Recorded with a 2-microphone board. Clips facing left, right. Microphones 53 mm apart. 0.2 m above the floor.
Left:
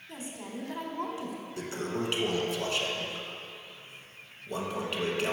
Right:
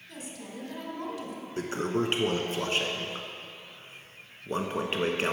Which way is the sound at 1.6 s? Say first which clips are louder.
Right 5 dB; 40° right (ahead or behind).